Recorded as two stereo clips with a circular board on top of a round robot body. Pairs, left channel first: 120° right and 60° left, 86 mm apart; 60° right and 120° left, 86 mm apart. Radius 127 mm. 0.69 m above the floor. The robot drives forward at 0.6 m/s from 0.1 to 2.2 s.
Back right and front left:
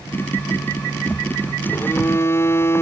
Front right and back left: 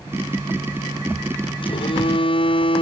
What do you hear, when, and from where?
1.6 s a phone buzzing: 50° right; by 2.8 s 60° right